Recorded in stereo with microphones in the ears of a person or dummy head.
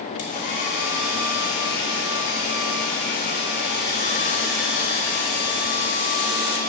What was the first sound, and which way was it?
A hair dryer, 55° left (ahead or behind).